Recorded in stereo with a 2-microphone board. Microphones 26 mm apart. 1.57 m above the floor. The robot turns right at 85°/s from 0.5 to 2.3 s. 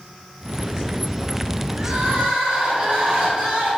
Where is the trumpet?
I don't hear a trumpet.